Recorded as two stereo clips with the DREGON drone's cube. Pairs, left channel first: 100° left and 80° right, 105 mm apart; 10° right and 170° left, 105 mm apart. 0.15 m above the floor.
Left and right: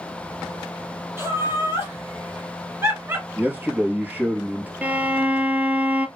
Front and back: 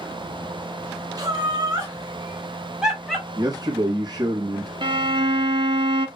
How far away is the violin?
About 0.5 m.